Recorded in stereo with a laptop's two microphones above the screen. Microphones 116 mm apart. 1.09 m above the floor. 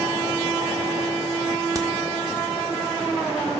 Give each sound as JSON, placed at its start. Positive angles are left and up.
{"t": 1.8, "sound": "a crack", "side_deg": -30, "distance_m": 1.5}